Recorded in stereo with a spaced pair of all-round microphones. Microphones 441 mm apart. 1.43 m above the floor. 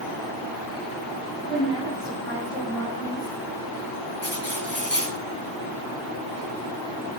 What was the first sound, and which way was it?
A woman speaking, 70° left (ahead or behind).